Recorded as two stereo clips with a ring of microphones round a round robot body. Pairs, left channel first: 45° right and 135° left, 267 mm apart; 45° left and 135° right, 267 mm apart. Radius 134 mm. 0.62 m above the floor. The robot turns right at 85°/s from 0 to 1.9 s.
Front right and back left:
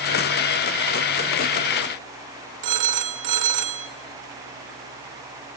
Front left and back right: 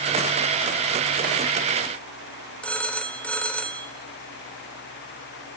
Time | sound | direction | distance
2.6 | a phone ringing | 130° left | 1.7 m